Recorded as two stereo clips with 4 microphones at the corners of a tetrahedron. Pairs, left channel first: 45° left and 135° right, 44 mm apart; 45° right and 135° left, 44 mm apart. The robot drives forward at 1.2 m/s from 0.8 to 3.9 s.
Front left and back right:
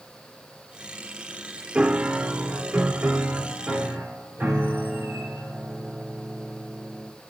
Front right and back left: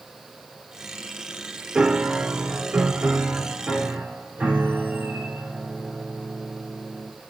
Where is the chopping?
I don't hear chopping.